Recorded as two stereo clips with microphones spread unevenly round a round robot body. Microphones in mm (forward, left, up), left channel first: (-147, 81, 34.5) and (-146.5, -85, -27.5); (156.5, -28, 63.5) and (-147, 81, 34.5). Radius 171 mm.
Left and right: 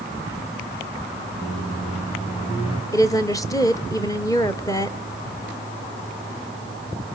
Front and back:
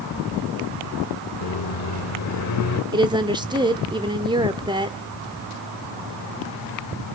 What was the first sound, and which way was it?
A microwave, 10° left.